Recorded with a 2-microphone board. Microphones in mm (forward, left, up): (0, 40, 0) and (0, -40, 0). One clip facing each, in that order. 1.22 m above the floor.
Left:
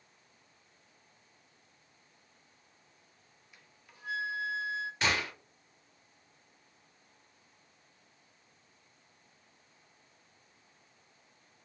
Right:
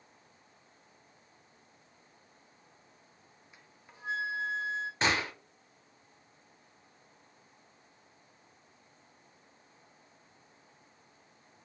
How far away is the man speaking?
No man speaking in this recording.